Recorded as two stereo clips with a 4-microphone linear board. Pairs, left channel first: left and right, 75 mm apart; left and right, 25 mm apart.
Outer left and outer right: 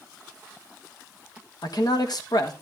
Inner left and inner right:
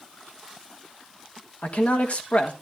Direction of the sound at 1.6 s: 60° left (ahead or behind).